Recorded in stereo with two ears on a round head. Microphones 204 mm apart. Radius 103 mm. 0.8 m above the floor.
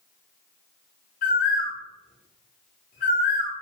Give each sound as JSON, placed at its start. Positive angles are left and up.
{"t": 1.2, "sound": "a bird", "side_deg": 35, "distance_m": 0.6}